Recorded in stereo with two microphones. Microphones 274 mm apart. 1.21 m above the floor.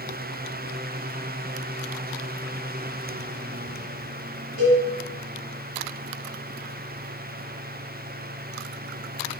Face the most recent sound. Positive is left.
turn(degrees=50)  # may be behind; listen again after turning